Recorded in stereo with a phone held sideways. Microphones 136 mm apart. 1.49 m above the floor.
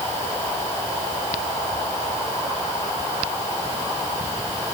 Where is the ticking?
No ticking in this recording.